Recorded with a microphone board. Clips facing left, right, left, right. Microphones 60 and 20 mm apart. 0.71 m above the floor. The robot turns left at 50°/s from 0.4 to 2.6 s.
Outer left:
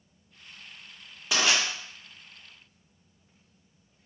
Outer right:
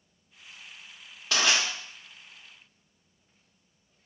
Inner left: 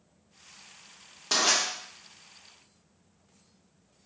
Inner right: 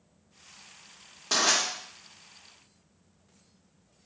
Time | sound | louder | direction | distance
1.3 | crushing | even, even | 10° left (ahead or behind) | 0.9 m